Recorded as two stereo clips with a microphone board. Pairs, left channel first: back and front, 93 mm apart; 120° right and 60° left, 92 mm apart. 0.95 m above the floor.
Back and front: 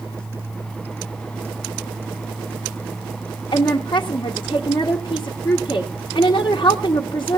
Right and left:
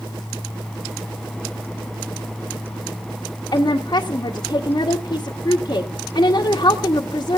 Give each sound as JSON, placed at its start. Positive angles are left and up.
{"t": 3.5, "sound": "a woman speaking", "azimuth_deg": -160, "distance_m": 1.6}